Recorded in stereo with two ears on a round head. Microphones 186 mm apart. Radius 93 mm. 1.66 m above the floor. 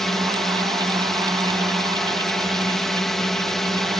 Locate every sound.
0.0 s a drone: centre (ahead or behind)